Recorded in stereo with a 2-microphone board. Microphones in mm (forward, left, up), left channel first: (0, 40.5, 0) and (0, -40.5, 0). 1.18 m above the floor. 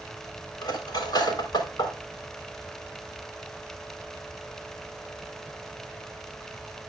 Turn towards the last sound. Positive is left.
turn(degrees=60)  # may be behind; listen again after turning